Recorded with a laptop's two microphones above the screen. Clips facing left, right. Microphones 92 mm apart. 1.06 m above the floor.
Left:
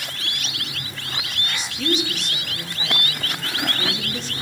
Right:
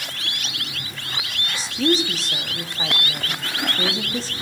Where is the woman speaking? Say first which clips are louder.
Right 4 dB; 35° right (ahead or behind), 1.7 m.